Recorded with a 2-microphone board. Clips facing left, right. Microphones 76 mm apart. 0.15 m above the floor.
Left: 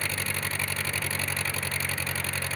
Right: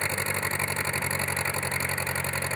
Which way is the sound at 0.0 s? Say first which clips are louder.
Right 3 dB; 25° right (ahead or behind).